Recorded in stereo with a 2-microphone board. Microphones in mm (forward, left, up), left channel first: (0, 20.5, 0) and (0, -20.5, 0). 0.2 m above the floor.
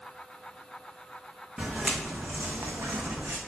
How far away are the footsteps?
About 0.8 m.